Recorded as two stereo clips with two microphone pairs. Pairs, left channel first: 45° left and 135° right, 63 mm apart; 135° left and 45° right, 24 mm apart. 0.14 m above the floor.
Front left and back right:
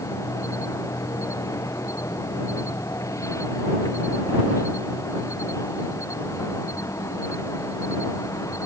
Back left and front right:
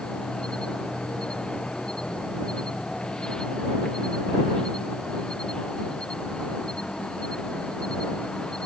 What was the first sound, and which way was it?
An insect, 80° left.